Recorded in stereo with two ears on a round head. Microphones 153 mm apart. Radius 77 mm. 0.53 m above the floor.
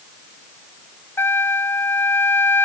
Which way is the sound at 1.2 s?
15° left (ahead or behind).